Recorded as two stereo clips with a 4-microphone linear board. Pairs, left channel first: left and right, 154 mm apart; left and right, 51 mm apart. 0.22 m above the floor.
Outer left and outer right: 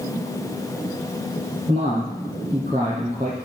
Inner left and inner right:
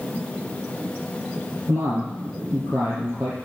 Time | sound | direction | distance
1.7 | a man speaking | 45° right (ahead or behind) | 5 m